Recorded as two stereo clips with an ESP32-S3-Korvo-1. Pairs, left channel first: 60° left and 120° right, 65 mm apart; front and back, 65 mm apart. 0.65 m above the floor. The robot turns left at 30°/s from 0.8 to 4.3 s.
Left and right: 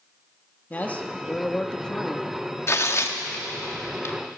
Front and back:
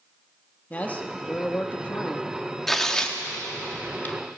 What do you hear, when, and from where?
0.7 s a man speaking: 30° left, 0.8 m; by 2.3 s 15° right, 0.8 m
2.7 s tearing paper: 85° left, 1.0 m; by 4.2 s 40° left, 1.0 m